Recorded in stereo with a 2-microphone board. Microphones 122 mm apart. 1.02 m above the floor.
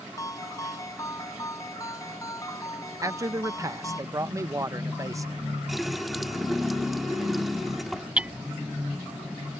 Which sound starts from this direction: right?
A man speaking, at 3.0 s.